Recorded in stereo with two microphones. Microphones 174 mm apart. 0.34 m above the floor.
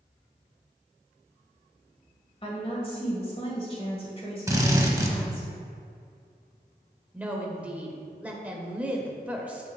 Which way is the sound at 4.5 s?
20° right (ahead or behind).